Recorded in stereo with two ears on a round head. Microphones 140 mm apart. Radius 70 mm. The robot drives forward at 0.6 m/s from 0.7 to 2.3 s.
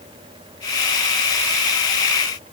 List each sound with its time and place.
Only background noise.